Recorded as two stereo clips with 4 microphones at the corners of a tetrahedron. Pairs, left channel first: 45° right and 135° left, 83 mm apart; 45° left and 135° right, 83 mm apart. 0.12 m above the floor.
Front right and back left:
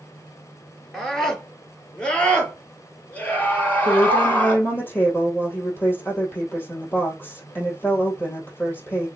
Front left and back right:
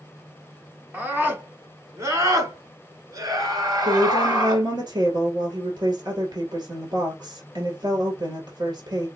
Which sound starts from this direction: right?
A woman speaking, at 3.9 s.